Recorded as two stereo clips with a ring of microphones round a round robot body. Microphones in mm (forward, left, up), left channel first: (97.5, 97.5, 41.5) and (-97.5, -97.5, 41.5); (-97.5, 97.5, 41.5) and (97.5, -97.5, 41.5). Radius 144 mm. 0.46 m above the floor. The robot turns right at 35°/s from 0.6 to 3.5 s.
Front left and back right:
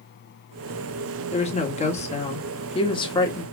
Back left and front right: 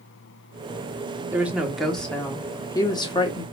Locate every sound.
1.3 s a woman speaking: 25° left, 1.4 m; by 3.4 s 100° left, 1.4 m